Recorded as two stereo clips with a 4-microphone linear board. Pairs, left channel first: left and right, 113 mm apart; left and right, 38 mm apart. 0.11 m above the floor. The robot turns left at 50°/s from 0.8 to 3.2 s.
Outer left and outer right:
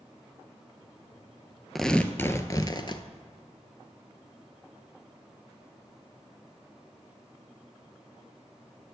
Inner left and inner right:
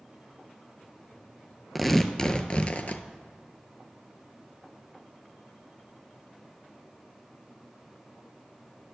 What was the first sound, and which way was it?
Tearing paper, straight behind.